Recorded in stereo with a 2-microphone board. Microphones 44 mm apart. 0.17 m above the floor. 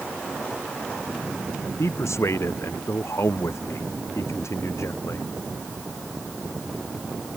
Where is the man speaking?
80° left.